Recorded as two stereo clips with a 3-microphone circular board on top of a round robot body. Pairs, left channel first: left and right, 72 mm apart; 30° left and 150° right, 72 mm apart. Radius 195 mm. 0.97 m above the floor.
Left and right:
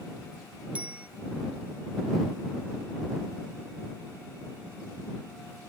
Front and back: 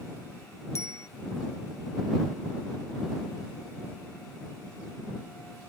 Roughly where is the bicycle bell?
Ahead.